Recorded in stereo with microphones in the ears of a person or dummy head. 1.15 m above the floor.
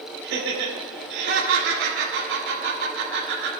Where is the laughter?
60° right (ahead or behind), 4 m.